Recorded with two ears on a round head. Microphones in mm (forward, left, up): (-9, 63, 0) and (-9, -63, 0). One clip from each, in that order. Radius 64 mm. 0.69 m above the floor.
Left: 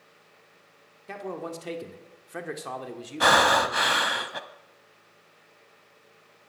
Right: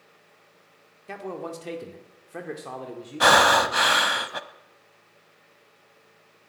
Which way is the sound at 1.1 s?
5° right (ahead or behind).